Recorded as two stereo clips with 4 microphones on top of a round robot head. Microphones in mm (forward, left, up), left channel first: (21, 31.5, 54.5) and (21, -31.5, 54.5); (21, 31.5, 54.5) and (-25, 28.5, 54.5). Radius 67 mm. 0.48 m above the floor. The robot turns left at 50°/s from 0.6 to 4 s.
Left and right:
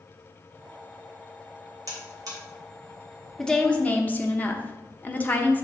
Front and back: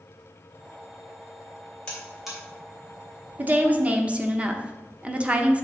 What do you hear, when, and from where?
1.9 s a buzzer: 70° right, 2.5 m; by 2.4 s 95° right, 2.5 m
3.4 s a woman speaking: 165° left, 1.1 m; by 5.6 s 135° left, 1.1 m